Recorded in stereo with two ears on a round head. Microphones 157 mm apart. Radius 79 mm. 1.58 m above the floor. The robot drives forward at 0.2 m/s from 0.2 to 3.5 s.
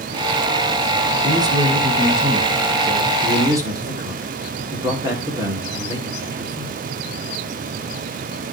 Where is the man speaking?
25° right (ahead or behind), 1.9 m; by 6.8 s 20° right (ahead or behind), 2.5 m.